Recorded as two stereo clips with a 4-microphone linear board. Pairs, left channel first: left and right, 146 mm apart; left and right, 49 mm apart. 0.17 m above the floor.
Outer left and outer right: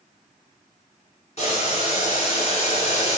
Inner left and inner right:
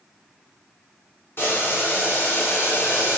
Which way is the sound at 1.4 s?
45° left (ahead or behind).